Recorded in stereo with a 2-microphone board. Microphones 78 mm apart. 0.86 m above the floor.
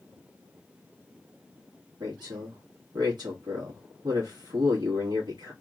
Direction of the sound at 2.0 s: 70° right (ahead or behind).